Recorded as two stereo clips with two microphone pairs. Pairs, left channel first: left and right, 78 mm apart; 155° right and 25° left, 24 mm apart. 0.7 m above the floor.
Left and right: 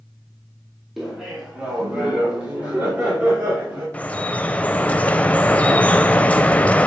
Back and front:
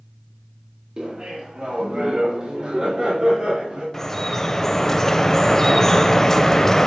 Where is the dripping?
145° left, 0.5 m.